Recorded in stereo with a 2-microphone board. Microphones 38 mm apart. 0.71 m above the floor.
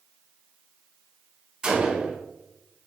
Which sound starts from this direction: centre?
A gunshot, at 1.6 s.